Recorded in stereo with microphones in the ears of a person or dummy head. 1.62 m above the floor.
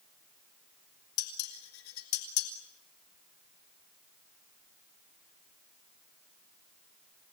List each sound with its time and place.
1.2 s dishes clattering: 65° left (ahead or behind), 2 m